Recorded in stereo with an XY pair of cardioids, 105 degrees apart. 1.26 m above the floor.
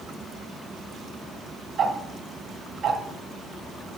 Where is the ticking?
50° right, 1.2 m.